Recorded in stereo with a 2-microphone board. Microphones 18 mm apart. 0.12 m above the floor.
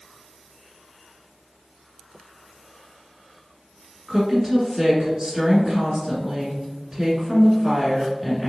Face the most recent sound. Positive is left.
turn(degrees=-25)  # may be behind; listen again after turning